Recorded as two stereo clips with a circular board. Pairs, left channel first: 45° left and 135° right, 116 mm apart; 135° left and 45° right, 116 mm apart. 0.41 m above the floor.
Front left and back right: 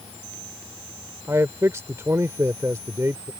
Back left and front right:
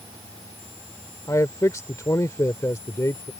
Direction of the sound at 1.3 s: 175° left.